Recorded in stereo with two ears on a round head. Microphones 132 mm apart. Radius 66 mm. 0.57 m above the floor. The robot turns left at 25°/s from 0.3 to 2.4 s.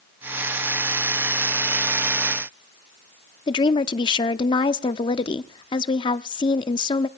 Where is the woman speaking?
30° left (ahead or behind), 0.7 m.